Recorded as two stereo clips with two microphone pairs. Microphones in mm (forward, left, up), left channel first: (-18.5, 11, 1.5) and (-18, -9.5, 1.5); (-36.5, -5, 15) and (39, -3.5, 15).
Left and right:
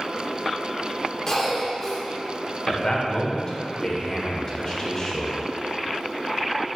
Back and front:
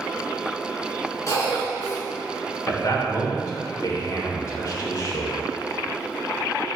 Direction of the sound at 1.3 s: 155° left.